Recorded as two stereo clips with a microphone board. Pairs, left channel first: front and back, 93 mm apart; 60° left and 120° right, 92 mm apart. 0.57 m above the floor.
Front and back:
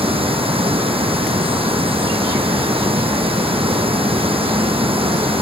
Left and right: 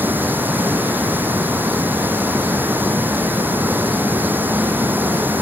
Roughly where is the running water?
Behind.